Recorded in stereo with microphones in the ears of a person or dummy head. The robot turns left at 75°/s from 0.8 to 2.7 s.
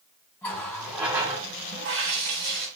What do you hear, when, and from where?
0.4 s a running tap: 20° left, 1.7 m; by 2.7 s 120° right, 1.7 m